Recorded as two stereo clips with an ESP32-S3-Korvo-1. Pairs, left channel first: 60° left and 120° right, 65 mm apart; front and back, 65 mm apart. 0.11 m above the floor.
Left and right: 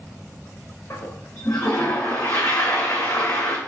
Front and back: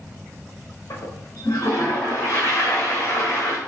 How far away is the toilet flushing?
About 1.6 m.